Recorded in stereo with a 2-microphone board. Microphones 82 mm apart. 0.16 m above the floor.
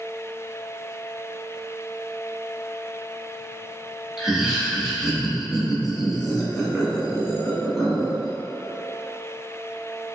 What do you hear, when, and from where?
4.2 s laughter: 5° right (ahead or behind), 1.4 m